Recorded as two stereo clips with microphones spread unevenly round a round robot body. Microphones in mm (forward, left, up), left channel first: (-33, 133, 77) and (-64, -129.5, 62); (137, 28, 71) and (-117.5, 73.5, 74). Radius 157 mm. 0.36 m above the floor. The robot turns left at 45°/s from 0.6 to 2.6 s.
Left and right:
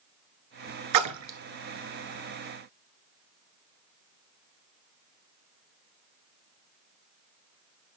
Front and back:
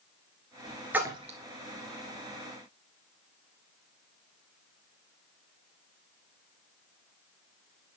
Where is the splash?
105° right, 1.1 m; by 1.4 s 125° right, 1.1 m.